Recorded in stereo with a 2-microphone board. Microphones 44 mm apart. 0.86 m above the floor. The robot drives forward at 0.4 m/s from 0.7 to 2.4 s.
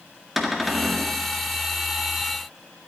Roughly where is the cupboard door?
Centre.